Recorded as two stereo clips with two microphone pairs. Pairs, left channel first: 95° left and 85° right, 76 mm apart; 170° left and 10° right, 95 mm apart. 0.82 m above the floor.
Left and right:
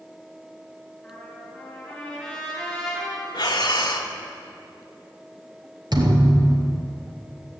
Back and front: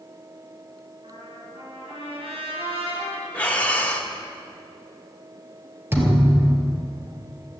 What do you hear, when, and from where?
1.0 s a trumpet: 10° left, 7 m
3.3 s breathing: 95° left, 1.6 m
5.9 s a thud: 70° right, 1.9 m